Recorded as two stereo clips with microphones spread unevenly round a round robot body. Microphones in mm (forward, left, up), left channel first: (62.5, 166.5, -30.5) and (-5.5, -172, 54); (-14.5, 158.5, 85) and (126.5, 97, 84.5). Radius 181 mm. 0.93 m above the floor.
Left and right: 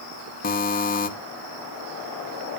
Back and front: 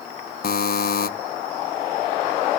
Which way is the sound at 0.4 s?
140° left.